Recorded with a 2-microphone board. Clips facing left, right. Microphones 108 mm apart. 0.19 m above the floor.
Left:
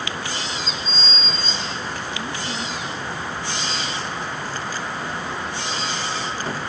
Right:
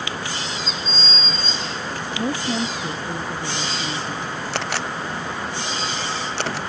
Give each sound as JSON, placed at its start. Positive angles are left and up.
{"t": 2.2, "sound": "a woman speaking", "side_deg": -80}
{"t": 4.5, "sound": "a camera shutter", "side_deg": -80}